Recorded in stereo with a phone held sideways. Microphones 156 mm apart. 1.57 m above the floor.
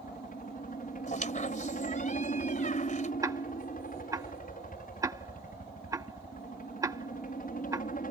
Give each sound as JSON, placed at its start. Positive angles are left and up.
{"t": 0.0, "sound": "a helicopter", "side_deg": 60}
{"t": 1.1, "sound": "a squeak", "side_deg": 55}
{"t": 3.2, "sound": "ticking", "side_deg": -20}